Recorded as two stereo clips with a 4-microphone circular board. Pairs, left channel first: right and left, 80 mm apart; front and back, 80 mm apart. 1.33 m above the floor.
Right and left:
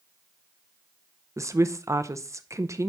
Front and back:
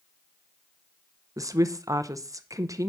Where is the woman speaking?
135° left, 0.7 m.